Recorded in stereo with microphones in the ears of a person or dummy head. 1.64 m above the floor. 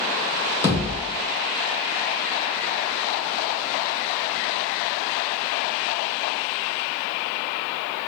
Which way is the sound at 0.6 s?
15° left (ahead or behind).